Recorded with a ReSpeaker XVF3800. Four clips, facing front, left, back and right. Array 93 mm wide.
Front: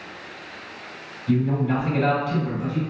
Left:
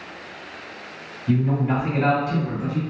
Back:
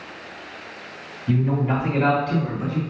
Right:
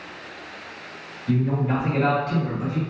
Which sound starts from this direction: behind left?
A man speaking, at 1.3 s.